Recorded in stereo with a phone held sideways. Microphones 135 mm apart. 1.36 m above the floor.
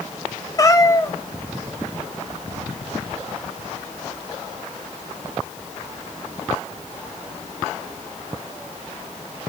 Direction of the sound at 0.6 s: 25° left (ahead or behind).